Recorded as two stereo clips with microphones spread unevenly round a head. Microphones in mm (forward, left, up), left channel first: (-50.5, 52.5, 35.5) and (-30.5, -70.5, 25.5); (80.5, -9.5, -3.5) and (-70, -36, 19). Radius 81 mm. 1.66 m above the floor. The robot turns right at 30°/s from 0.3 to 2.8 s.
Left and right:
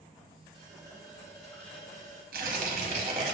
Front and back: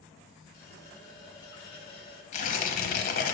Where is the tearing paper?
40° right, 0.6 m; by 3.4 s 25° right, 0.6 m.